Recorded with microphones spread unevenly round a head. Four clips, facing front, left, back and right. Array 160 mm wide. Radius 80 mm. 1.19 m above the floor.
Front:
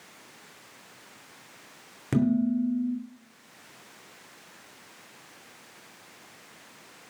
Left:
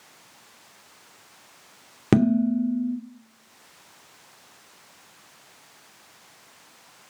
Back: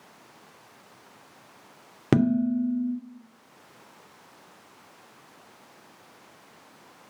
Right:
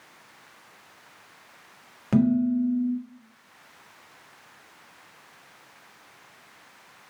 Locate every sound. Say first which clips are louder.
2.1 s dishes clattering: left 2 dB, back 2 dB; 115° left, 2.5 m